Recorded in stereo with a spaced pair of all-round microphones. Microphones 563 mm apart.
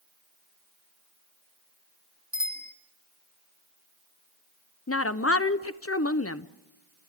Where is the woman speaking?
25° left (ahead or behind), 0.8 m.